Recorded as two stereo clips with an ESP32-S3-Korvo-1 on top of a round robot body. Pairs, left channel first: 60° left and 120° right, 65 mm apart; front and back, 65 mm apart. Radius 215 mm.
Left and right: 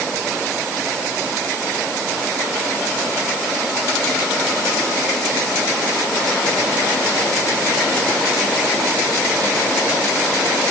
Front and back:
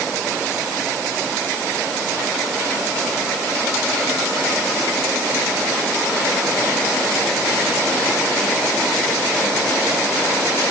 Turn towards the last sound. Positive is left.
No sound to turn to.